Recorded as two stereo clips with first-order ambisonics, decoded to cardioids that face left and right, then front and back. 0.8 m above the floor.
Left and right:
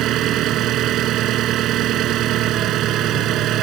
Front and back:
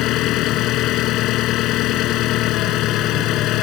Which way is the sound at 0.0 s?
40° right.